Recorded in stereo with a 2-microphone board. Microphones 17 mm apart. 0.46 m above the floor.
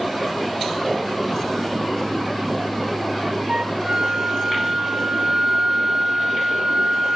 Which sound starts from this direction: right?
A flute, at 3.5 s.